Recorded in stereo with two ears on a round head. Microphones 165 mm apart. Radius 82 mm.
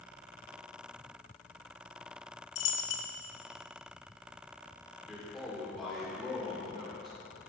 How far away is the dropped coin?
About 1.0 m.